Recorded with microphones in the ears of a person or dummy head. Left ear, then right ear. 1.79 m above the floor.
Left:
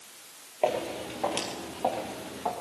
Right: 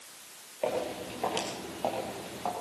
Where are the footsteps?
10° left (ahead or behind), 2.5 m; by 2.5 s 10° right (ahead or behind), 3 m.